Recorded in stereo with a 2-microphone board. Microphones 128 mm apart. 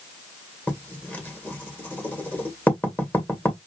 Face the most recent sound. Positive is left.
turn(degrees=15)  # may be behind; listen again after turning